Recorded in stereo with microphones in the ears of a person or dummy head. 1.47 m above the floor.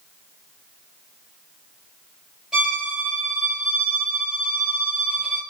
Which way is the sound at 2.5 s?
Centre (ahead or behind).